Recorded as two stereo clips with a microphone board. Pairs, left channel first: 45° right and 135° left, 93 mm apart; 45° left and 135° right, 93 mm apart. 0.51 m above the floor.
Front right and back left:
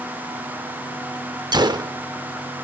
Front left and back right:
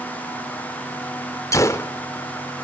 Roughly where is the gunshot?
Left.